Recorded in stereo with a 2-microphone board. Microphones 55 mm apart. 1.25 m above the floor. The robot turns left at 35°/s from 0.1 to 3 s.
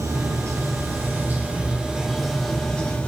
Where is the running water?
105° right, 3 m; by 3.1 s 155° left, 3 m.